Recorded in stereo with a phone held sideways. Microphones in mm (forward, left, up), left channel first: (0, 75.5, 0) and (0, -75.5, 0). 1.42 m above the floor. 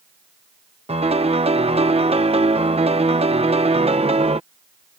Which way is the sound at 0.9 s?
40° right (ahead or behind).